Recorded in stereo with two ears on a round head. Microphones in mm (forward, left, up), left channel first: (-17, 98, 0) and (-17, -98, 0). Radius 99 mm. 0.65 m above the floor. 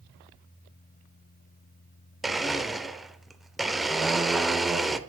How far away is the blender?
About 0.5 m.